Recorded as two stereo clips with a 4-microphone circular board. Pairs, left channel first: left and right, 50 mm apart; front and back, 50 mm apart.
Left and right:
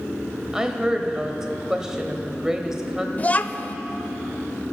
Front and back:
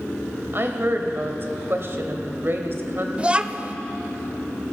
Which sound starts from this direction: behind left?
A child speaking, at 3.2 s.